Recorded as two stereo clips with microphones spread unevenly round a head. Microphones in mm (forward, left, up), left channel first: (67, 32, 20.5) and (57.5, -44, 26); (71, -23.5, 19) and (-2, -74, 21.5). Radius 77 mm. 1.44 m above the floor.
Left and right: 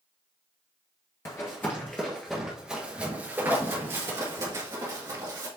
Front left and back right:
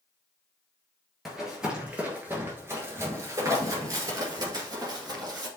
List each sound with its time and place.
1.2 s running footsteps: 130° left, 1.6 m; by 5.5 s 125° right, 2.5 m